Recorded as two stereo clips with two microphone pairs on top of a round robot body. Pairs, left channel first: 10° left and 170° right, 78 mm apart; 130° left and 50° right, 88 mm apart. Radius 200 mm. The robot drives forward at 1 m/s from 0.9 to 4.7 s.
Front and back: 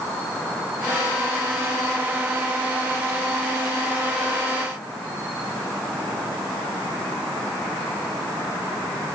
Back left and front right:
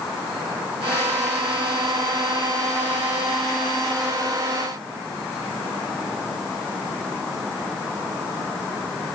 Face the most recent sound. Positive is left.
No sound to turn to.